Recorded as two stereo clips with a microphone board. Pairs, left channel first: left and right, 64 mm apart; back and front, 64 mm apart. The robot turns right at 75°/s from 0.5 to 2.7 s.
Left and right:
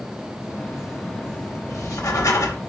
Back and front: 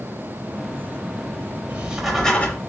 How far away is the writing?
About 0.8 m.